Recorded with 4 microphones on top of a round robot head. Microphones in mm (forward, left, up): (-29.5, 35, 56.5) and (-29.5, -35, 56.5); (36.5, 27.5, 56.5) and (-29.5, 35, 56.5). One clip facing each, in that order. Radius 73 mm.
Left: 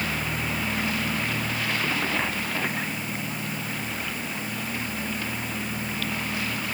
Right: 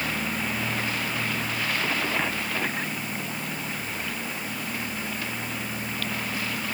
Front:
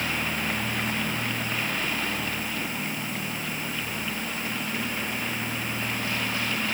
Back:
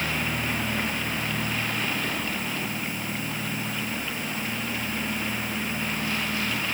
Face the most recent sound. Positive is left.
No sound to turn to.